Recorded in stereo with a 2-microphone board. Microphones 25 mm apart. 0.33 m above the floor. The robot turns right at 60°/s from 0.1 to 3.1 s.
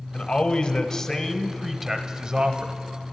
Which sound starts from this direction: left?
A man speaking, at 0.1 s.